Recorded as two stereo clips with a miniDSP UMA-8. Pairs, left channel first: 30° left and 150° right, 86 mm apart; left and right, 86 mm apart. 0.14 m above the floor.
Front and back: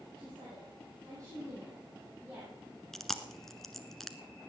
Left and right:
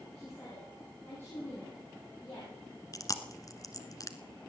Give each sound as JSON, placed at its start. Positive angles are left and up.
{"t": 0.1, "sound": "a woman speaking", "azimuth_deg": 170, "distance_m": 6.0}
{"t": 2.9, "sound": "chewing", "azimuth_deg": 115, "distance_m": 0.9}